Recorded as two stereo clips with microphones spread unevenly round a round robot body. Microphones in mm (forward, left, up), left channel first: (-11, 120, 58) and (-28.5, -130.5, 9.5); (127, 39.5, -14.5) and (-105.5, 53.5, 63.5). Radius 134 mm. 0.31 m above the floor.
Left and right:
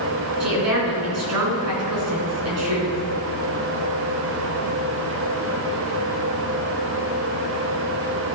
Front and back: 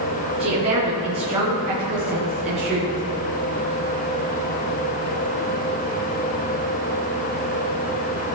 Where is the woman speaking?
110° right, 3.5 m.